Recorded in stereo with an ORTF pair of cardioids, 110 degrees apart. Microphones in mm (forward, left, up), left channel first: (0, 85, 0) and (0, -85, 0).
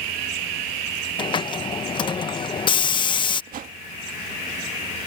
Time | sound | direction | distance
1.2 | a hiss | 30° left | ?
3.5 | a whoosh | 55° right | ?